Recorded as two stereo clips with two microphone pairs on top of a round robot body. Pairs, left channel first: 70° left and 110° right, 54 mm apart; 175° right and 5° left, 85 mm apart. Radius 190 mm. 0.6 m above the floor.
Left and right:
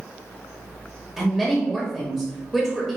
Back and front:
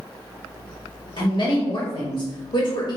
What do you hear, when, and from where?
1.2 s a woman speaking: 165° left, 1.5 m